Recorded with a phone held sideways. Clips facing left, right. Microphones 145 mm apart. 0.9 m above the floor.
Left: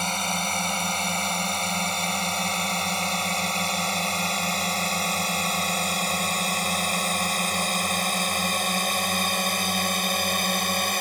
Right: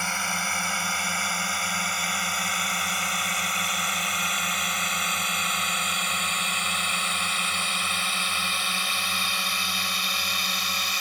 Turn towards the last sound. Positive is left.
turn(degrees=50)  # may be behind; listen again after turning